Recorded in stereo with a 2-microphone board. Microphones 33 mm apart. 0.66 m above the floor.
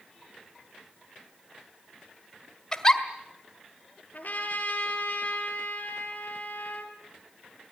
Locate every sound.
2.7 s a giggle: 20° left (ahead or behind), 1.6 m
4.1 s a trumpet: 55° left (ahead or behind), 3 m